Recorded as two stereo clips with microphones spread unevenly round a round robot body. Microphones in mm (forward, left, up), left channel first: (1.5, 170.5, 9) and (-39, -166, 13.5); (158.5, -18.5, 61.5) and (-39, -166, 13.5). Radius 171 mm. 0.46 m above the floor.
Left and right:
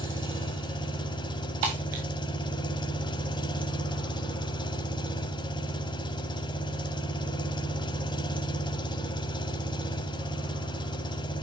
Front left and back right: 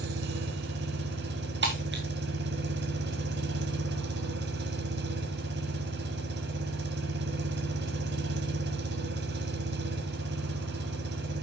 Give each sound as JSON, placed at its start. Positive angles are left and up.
{"t": 0.0, "sound": "an engine running", "azimuth_deg": 160, "distance_m": 1.1}
{"t": 1.6, "sound": "breaking glass", "azimuth_deg": -95, "distance_m": 4.0}